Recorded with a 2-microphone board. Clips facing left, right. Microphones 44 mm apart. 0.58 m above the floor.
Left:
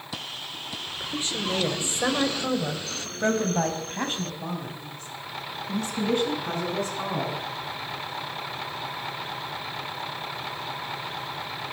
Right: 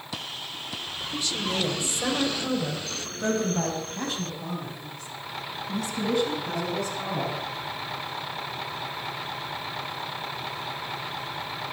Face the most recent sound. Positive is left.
turn(degrees=35)  # may be behind; listen again after turning